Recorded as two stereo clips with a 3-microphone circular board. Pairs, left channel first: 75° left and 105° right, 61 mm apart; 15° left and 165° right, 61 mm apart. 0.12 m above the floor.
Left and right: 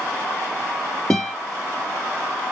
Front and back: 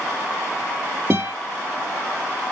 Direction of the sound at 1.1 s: 160° left.